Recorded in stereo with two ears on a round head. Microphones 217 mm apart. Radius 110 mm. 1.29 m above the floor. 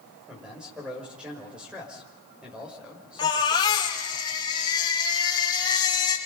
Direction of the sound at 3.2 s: 15° left (ahead or behind).